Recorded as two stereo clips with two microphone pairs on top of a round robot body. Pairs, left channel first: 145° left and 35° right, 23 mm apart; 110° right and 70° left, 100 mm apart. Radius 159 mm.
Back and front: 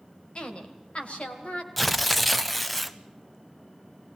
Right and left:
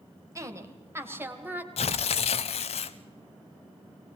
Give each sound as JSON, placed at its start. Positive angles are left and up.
{"t": 0.3, "sound": "a woman speaking", "azimuth_deg": 115, "distance_m": 3.0}
{"t": 1.8, "sound": "tearing paper", "azimuth_deg": -125, "distance_m": 0.6}